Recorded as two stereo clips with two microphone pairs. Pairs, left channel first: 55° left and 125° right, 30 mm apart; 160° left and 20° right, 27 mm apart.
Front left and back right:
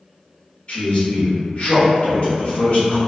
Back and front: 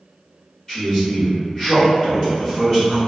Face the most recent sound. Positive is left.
turn(degrees=95)